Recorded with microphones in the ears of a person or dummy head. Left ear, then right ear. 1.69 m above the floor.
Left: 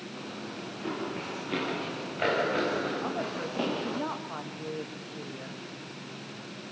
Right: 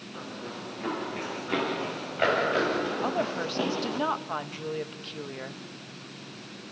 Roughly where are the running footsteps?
Right.